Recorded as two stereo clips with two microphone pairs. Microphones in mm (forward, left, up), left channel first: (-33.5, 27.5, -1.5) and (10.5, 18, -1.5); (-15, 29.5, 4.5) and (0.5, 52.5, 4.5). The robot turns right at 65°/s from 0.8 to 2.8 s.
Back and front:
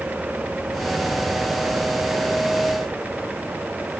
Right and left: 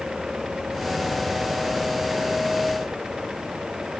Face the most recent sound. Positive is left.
No sound to turn to.